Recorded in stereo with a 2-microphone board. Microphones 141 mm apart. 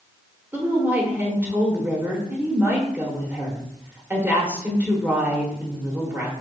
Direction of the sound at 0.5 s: 15° right (ahead or behind).